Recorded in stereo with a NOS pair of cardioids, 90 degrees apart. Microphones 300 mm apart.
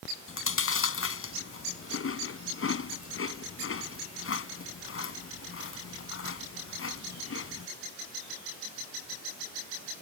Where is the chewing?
40° left.